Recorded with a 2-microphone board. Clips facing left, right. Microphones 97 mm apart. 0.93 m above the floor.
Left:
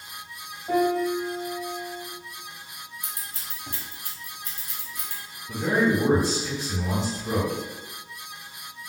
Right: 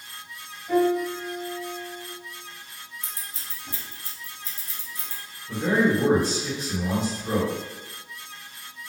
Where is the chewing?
No chewing in this recording.